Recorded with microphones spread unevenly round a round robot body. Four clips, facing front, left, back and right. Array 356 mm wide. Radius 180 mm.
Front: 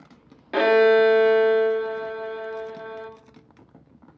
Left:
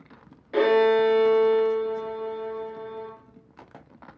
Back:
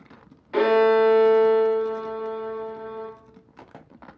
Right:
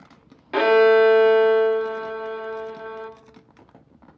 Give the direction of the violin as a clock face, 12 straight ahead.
1 o'clock.